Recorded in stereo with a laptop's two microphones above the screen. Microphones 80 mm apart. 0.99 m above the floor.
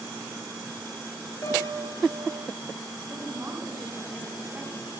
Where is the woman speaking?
30° right (ahead or behind), 7 m.